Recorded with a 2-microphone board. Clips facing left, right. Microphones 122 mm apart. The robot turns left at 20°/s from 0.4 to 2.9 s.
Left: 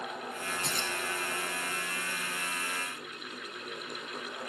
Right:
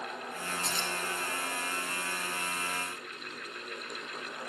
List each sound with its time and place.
0.6 s keys jangling: 50° left (ahead or behind), 1.4 m; by 0.9 s 55° left (ahead or behind), 1.4 m